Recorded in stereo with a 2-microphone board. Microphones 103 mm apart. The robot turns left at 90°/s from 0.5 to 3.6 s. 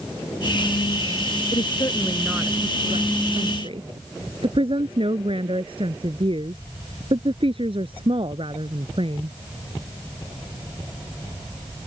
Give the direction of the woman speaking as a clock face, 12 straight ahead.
10 o'clock.